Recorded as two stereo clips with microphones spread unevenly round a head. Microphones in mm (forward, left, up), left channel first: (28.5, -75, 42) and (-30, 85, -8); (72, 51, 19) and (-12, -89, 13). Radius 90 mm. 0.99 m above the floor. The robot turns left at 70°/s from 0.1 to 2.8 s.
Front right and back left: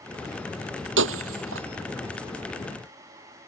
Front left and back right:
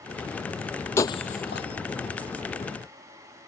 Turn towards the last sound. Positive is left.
turn(degrees=10)